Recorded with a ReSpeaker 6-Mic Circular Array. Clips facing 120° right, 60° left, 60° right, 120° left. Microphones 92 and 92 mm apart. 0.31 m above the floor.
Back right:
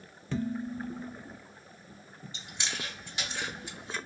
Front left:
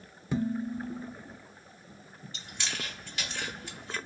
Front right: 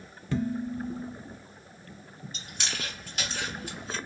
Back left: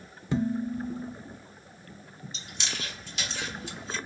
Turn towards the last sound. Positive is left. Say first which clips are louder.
# even, front right 1 dB
turn(degrees=-55)